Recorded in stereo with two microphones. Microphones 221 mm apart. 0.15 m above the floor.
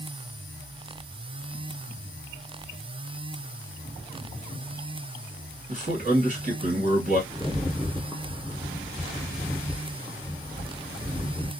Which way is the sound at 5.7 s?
35° right (ahead or behind).